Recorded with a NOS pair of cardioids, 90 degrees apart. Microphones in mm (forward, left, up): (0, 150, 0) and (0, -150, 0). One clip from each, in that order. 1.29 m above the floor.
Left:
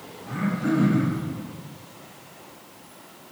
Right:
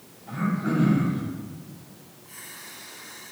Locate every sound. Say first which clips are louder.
0.3 s throat clearing: left 2 dB; 65° left, 1.0 m